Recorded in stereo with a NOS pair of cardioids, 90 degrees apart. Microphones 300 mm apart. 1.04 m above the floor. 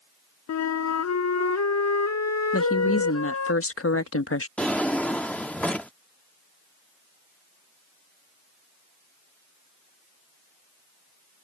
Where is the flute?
65° left.